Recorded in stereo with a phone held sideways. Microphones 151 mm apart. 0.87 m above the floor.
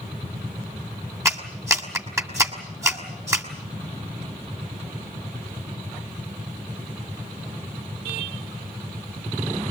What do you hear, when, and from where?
1.2 s a clap: 20° right (ahead or behind), 2.5 m